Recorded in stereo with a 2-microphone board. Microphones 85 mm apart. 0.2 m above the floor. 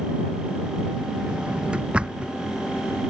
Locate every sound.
1.3 s a drawer: 10° right (ahead or behind)